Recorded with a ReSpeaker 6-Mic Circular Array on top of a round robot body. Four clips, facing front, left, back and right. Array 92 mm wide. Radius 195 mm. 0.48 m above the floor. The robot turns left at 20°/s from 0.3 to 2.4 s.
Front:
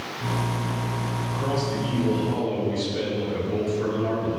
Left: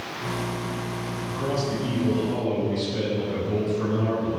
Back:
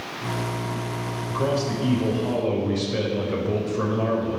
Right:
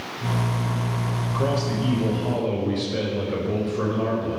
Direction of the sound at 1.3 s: 120° right.